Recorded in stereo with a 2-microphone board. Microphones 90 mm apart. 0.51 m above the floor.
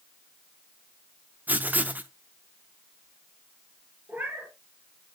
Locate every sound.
1.5 s writing: 20° right (ahead or behind), 0.7 m
4.1 s a cat meowing: 20° right (ahead or behind), 3 m